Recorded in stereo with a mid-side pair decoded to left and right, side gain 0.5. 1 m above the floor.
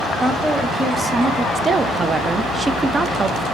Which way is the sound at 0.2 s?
15° right.